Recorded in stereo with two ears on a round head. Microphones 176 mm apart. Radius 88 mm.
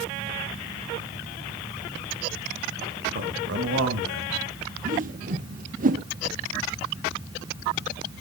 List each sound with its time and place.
3.1 s a man speaking: 50° right (ahead or behind), 1.5 m; by 4.4 s 70° right (ahead or behind), 2.5 m
4.8 s a whoosh: 40° right (ahead or behind), 0.7 m